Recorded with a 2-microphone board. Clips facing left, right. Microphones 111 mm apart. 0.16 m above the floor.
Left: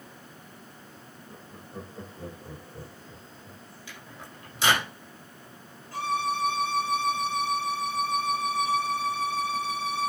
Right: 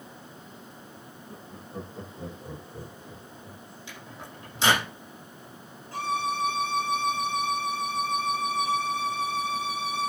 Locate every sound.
1.3 s laughter: 20° right (ahead or behind), 6 m; by 3.7 s 5° right (ahead or behind), 2.5 m
3.9 s a microwave: 25° right (ahead or behind), 6.5 m
5.9 s a violin: 20° right (ahead or behind), 4.5 m